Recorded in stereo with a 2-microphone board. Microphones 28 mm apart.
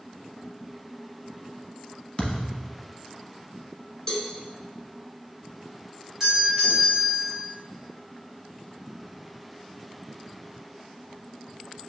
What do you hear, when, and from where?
2.2 s a thud: 35° left (ahead or behind), 1.0 m
4.1 s a cowbell: 20° left (ahead or behind), 1.2 m
6.2 s a doorbell: 20° right (ahead or behind), 2.0 m